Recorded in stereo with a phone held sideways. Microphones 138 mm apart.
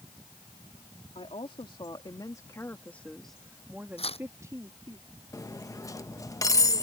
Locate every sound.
1.1 s a woman speaking: 45° left (ahead or behind); by 5.0 s 30° right (ahead or behind)
4.0 s tearing paper: 45° left (ahead or behind)
5.3 s cutlery clinking: 25° left (ahead or behind)